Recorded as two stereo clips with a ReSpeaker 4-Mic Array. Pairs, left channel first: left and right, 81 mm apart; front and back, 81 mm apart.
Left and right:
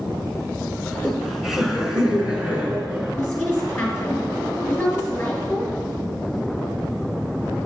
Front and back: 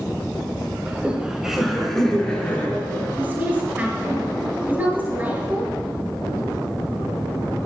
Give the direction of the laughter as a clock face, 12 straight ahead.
7 o'clock.